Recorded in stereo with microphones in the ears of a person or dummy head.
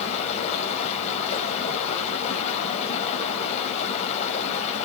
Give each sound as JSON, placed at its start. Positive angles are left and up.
{"t": 0.0, "sound": "running water", "side_deg": 40, "distance_m": 4.5}